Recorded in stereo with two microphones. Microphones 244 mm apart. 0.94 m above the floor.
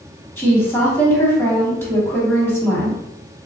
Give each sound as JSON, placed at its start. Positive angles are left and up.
{"t": 0.4, "sound": "a woman speaking", "side_deg": 10, "distance_m": 1.9}